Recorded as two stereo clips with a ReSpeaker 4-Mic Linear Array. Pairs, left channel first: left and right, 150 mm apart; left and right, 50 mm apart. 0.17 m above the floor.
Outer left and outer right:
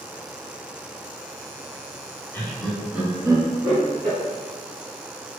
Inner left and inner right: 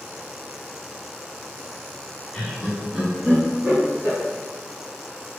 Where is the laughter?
15° left (ahead or behind), 1.4 m; by 4.2 s 40° right (ahead or behind), 1.9 m.